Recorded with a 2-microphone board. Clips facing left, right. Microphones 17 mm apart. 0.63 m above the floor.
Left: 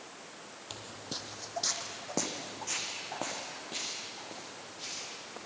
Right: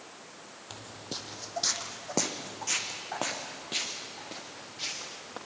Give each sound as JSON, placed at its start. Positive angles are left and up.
{"t": 0.7, "sound": "footsteps", "side_deg": 15, "distance_m": 1.1}